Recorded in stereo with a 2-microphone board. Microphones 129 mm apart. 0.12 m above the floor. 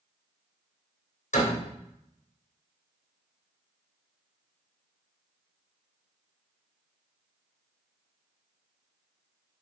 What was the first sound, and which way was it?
A door slam, 75° left (ahead or behind).